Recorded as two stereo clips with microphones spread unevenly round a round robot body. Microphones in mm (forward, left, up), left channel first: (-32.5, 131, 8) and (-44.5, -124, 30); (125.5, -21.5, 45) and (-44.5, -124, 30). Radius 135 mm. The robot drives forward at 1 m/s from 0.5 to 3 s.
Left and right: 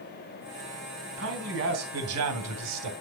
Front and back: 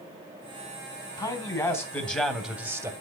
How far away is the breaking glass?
I don't hear breaking glass.